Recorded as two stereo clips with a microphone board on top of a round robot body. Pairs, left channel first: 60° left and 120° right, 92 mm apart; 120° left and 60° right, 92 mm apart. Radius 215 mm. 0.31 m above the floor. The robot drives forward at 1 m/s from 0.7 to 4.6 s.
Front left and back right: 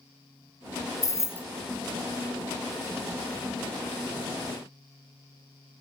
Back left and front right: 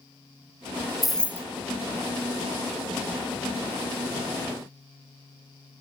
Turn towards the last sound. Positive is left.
turn(degrees=175)